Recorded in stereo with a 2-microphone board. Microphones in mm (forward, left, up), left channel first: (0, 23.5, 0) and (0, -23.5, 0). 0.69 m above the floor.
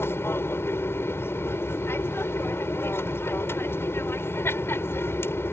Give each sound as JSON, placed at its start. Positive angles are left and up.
{"t": 0.0, "sound": "an aircraft", "side_deg": 60}